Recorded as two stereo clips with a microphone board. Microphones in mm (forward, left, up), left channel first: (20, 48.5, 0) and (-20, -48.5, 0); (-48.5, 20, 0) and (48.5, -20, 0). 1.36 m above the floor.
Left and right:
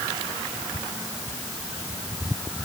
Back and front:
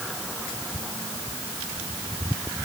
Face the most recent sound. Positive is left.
No sound to turn to.